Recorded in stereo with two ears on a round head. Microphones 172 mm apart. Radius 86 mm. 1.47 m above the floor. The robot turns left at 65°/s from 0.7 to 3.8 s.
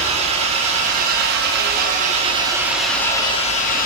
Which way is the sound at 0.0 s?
40° right.